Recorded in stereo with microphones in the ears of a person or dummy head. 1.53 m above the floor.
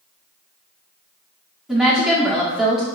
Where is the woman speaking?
5° right (ahead or behind), 1.0 m.